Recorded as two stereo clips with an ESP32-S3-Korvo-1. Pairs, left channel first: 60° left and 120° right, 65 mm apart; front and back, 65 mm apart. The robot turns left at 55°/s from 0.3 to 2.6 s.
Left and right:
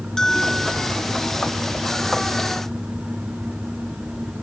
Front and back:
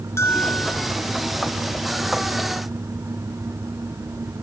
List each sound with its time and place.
0.2 s a bell: 20° right, 1.0 m; by 0.9 s 50° right, 1.0 m